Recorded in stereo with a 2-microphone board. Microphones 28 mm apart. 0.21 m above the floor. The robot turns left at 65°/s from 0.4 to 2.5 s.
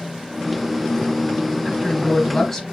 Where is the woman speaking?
20° right (ahead or behind), 1.1 m; by 2.6 s 10° left (ahead or behind), 1.1 m.